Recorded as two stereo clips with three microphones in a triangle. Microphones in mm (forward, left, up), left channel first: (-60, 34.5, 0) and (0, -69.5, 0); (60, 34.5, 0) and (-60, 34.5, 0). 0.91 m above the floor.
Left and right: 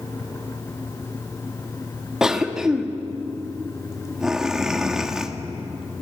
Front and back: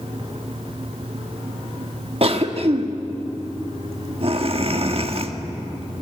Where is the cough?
145° right, 1.4 m.